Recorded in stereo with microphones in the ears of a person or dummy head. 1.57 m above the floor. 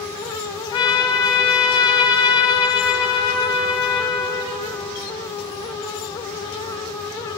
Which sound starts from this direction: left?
A trumpet, at 0.7 s.